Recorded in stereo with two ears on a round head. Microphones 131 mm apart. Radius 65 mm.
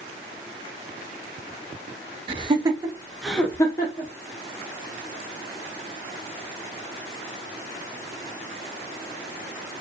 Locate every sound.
2.3 s laughter: 35° right (ahead or behind), 1.2 m; by 4.1 s 35° left (ahead or behind), 1.0 m